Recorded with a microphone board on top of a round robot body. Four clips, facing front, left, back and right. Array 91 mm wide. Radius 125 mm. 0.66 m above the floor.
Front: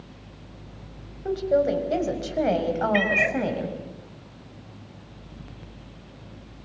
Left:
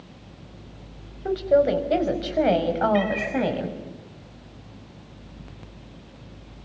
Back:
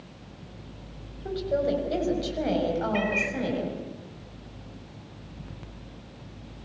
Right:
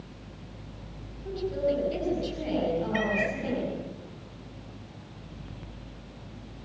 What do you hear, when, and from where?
1.2 s a woman speaking: 70° left, 5.5 m; by 3.8 s 60° left, 6 m
2.9 s a cat meowing: 15° right, 1.3 m